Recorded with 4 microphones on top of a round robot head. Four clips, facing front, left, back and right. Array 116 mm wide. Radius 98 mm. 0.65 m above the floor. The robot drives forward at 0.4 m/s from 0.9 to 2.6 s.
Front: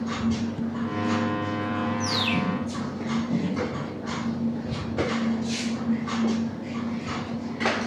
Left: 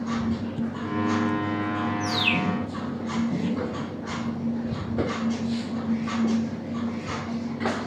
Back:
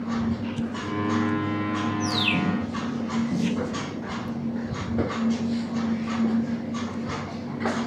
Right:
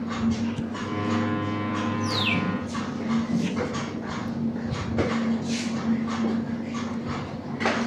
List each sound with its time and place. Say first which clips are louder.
2.0 s a bird: left 1 dB, back 1 dB; 75° left, 2.5 m; by 2.5 s 80° left, 2.5 m